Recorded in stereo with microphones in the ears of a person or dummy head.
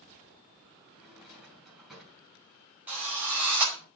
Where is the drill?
5° right (ahead or behind), 4.5 m.